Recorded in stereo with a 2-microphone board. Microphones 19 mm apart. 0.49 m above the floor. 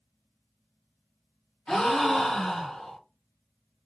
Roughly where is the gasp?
Left.